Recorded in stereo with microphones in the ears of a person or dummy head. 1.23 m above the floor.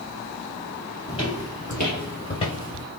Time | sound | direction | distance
1.1 | footsteps | 15° left (ahead or behind) | 1.5 m